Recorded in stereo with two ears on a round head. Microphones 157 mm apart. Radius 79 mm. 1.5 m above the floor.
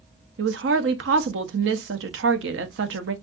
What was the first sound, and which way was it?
A woman speaking, 75° right (ahead or behind).